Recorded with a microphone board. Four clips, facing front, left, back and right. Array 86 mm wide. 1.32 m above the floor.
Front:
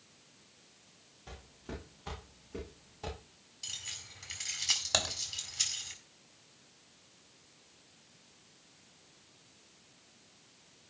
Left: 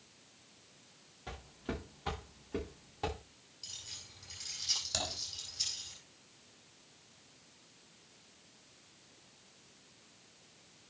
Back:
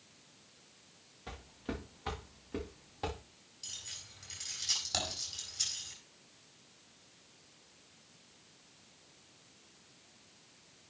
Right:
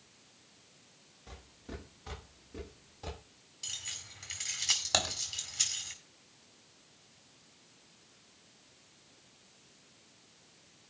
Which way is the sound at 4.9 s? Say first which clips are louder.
Right 6 dB, front 3 dB; 60° right.